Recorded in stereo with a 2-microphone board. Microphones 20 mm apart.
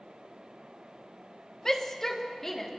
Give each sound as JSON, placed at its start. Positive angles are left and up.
{"t": 1.6, "sound": "a shout", "side_deg": 30, "distance_m": 1.7}